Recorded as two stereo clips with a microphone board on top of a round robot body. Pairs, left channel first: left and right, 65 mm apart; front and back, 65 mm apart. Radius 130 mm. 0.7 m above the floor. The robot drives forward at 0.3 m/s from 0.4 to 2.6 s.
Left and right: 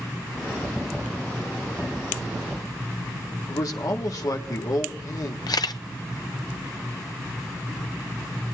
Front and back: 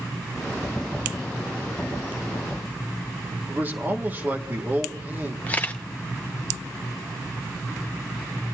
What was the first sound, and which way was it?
A man speaking, 120° left.